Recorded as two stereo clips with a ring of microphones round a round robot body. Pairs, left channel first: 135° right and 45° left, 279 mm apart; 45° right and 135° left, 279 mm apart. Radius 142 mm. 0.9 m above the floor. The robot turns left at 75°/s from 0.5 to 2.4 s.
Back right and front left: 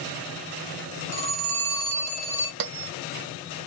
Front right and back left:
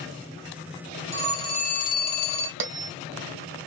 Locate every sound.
1.1 s a phone ringing: 35° left, 1.7 m; by 2.5 s 60° right, 1.7 m
2.6 s a bell: 90° left, 0.6 m